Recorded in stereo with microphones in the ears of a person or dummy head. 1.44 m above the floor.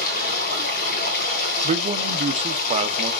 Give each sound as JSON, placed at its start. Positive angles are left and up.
{"t": 0.0, "sound": "running water", "side_deg": 55, "distance_m": 2.5}
{"t": 1.6, "sound": "a man speaking", "side_deg": -35, "distance_m": 0.6}